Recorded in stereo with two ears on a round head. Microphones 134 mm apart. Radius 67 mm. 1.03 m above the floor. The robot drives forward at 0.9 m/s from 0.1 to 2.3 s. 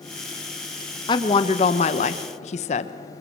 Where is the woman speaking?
30° left (ahead or behind), 1.5 m; by 2.9 s 45° left (ahead or behind), 1.0 m.